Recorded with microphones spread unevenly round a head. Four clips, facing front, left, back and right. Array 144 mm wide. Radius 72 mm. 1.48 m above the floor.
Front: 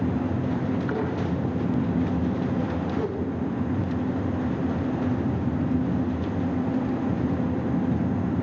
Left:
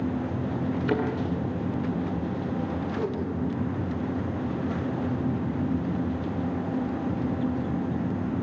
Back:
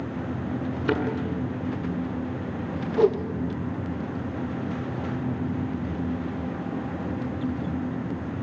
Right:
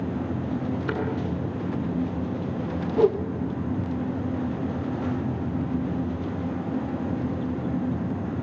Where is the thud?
Straight behind, 7 m.